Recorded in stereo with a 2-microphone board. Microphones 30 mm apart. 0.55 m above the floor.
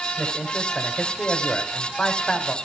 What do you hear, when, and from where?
0.2 s a man speaking: 20° left (ahead or behind), 2.5 m